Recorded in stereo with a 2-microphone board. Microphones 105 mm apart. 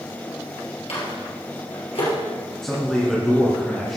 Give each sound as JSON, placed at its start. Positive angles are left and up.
{"t": 0.9, "sound": "a microwave", "side_deg": 70, "distance_m": 2.5}
{"t": 2.6, "sound": "a man speaking", "side_deg": 5, "distance_m": 2.5}